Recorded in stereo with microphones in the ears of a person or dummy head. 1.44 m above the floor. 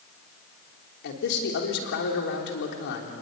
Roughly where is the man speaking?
Left.